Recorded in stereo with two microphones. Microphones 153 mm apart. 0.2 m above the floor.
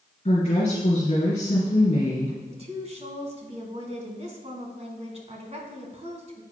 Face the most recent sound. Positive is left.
turn(degrees=-45)  # may be behind; listen again after turning